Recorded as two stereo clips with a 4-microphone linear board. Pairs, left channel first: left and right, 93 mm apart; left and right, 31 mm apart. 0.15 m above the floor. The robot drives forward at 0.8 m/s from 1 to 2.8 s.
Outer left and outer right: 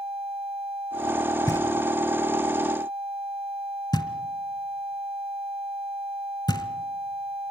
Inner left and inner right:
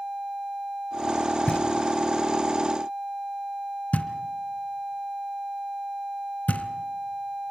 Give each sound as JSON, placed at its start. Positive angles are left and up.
{"t": 1.5, "sound": "knocking", "side_deg": 30, "distance_m": 1.5}